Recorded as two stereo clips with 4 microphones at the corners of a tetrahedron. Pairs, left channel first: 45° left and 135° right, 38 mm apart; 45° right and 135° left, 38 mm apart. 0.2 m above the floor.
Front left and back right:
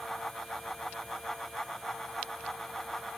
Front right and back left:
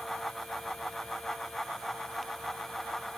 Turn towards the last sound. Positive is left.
No sound to turn to.